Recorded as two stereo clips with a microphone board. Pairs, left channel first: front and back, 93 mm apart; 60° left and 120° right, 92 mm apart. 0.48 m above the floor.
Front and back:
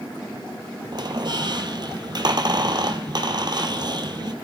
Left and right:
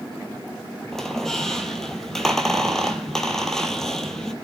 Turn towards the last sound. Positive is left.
turn(degrees=145)